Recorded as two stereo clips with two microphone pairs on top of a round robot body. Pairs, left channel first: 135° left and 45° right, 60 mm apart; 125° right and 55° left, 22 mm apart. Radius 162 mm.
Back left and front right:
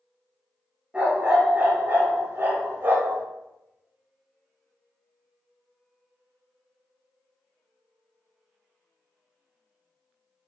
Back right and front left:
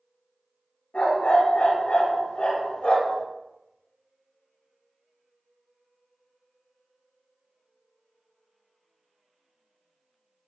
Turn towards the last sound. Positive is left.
turn(degrees=-95)